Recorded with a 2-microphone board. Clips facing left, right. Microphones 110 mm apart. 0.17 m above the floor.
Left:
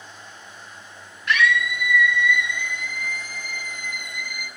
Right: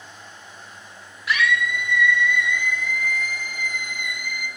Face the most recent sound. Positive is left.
turn(degrees=45)  # may be behind; listen again after turning